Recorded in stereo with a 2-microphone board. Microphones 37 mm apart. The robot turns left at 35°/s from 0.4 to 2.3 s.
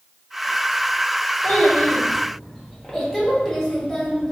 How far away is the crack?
No crack in this recording.